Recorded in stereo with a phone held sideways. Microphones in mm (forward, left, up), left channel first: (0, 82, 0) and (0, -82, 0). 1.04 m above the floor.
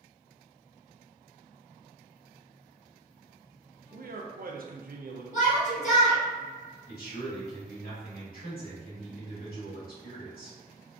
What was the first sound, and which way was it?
A man speaking, 65° right (ahead or behind).